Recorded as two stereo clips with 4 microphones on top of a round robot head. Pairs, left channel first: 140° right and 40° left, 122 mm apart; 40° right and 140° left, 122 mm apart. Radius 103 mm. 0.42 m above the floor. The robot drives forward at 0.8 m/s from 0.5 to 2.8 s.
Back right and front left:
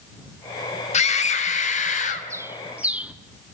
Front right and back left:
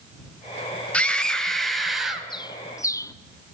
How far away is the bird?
About 1.3 m.